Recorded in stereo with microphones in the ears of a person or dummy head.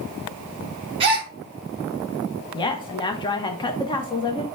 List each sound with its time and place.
1.0 s a gasp: 25° right (ahead or behind), 1.3 m
2.5 s a woman speaking: 20° left (ahead or behind), 0.8 m